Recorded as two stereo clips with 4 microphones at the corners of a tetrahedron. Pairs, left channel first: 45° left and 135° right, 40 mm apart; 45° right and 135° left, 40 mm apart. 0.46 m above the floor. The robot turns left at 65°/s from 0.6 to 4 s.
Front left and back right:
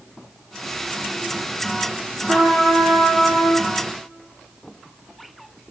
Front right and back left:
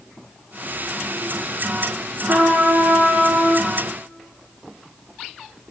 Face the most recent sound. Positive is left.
turn(degrees=60)